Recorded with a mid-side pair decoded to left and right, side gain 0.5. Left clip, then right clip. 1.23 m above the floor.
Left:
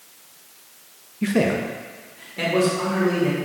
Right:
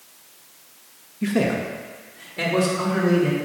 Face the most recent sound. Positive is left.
turn(degrees=-10)